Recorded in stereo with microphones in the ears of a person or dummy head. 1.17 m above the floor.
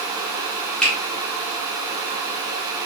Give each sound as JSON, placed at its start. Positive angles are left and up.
{"t": 0.8, "sound": "a finger snap", "side_deg": 5, "distance_m": 2.0}